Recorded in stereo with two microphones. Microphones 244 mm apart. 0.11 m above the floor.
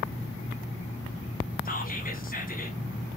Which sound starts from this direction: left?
Whispering, at 1.6 s.